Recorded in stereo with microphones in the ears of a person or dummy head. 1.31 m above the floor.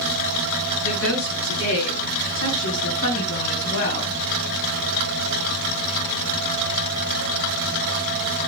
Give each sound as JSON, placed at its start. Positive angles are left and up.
{"t": 0.8, "sound": "a woman speaking", "side_deg": 90, "distance_m": 8.5}